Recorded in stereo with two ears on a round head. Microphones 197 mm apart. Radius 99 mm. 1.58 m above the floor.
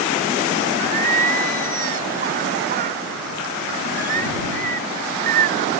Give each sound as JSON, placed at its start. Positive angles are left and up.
{"t": 0.8, "sound": "singing", "side_deg": -40}